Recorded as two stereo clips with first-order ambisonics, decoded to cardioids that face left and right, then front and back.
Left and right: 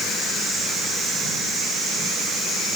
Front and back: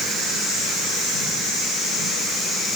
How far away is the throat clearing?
No throat clearing in this recording.